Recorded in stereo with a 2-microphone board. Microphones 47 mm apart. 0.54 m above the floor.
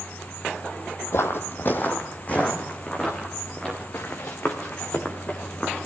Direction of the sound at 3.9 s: 50° left (ahead or behind).